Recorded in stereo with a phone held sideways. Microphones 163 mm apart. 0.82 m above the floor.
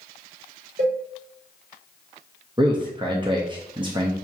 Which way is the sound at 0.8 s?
55° right (ahead or behind).